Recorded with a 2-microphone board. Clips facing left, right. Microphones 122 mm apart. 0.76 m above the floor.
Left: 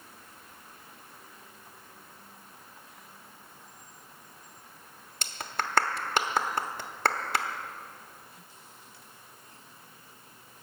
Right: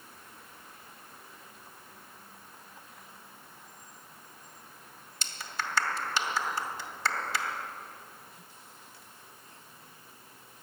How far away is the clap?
About 1.1 m.